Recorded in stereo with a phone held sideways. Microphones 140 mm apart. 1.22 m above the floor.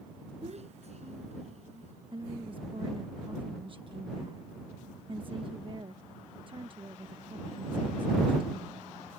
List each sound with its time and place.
0.4 s a child speaking: 50° right (ahead or behind)
2.1 s a woman speaking: 40° right (ahead or behind)